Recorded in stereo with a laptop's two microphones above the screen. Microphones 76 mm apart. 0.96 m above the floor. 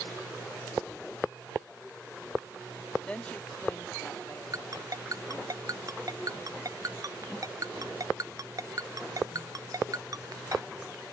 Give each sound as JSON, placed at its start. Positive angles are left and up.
{"t": 3.1, "sound": "a woman speaking", "side_deg": 15}
{"t": 4.5, "sound": "a ringtone", "side_deg": -55}